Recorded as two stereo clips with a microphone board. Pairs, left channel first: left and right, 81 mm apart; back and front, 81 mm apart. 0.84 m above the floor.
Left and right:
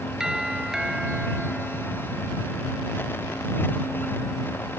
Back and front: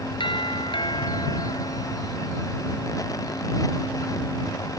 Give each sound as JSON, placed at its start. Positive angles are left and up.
{"t": 0.2, "sound": "a doorbell", "azimuth_deg": -175}